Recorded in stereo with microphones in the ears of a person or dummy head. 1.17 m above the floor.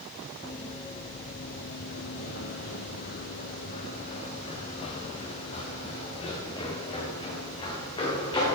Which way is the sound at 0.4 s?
25° left (ahead or behind).